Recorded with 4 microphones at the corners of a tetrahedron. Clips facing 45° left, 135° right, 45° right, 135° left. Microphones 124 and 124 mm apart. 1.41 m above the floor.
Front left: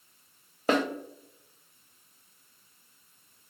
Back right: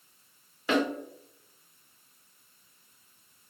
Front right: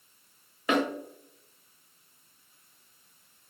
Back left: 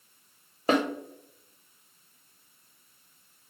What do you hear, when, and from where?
0.7 s a snare drum: 85° left, 0.6 m